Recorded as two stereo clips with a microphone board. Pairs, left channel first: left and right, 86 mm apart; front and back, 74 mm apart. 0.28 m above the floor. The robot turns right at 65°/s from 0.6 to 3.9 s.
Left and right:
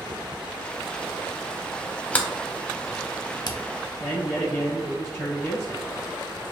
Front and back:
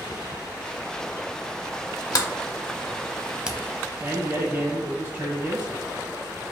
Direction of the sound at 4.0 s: 145° left.